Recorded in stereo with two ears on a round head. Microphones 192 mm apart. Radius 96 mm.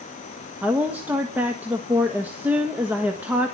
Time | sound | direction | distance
0.6 | a woman speaking | 10° right (ahead or behind) | 1.5 m